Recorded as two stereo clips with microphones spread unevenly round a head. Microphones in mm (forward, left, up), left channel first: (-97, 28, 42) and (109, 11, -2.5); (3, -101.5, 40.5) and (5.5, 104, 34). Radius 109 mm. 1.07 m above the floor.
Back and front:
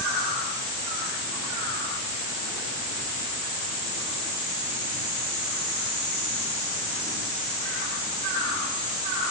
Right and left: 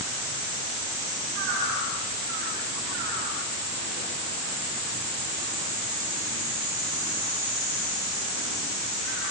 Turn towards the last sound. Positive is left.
No sound to turn to.